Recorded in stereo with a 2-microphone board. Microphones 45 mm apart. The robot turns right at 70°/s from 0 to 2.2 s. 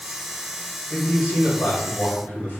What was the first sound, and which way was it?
A man speaking, 40° left.